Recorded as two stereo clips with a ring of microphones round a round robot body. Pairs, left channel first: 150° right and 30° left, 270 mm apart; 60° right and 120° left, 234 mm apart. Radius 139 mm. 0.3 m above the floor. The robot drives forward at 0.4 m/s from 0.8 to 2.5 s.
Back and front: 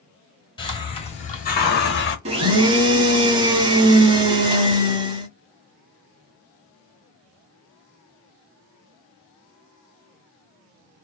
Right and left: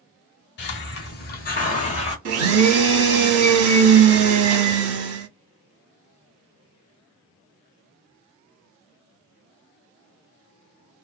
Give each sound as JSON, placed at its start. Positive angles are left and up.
{"t": 0.6, "sound": "a hiss", "azimuth_deg": -80, "distance_m": 1.1}
{"t": 2.2, "sound": "a blender", "azimuth_deg": 100, "distance_m": 0.9}